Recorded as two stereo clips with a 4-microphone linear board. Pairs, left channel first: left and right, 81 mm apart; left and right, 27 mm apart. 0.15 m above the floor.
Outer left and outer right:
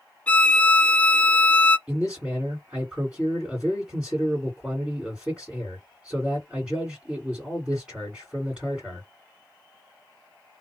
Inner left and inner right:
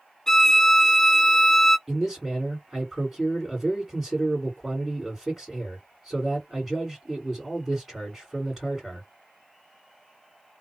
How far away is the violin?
About 0.6 m.